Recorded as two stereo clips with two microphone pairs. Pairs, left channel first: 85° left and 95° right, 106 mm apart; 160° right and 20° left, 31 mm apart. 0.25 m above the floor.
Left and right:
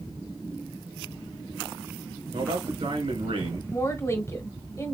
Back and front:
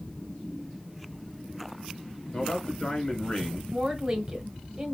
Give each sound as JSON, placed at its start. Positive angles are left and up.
{"t": 2.3, "sound": "a man speaking", "azimuth_deg": -105, "distance_m": 2.5}
{"t": 3.7, "sound": "a woman speaking", "azimuth_deg": 75, "distance_m": 1.2}